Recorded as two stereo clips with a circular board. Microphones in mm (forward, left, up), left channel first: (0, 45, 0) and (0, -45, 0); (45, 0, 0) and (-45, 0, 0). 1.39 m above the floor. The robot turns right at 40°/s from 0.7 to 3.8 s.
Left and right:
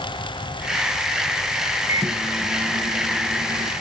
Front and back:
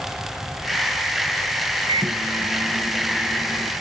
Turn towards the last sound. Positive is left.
turn(degrees=-70)